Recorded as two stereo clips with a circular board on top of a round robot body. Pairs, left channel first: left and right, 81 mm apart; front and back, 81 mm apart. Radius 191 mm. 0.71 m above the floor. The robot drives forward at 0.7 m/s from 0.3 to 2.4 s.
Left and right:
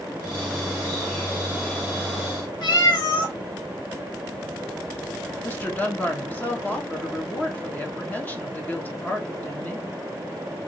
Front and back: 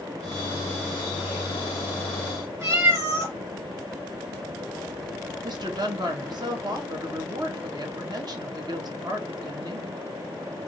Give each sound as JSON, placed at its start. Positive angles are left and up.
{"t": 2.6, "sound": "a cat meowing", "azimuth_deg": 125, "distance_m": 1.7}
{"t": 5.4, "sound": "a woman speaking", "azimuth_deg": 160, "distance_m": 1.5}